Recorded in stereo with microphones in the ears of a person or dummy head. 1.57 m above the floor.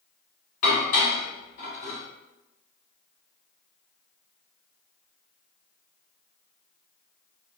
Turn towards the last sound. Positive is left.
turn(degrees=35)  # may be behind; listen again after turning